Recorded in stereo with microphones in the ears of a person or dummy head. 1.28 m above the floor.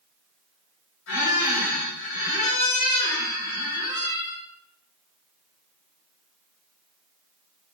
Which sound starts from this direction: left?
A squeak, at 1.1 s.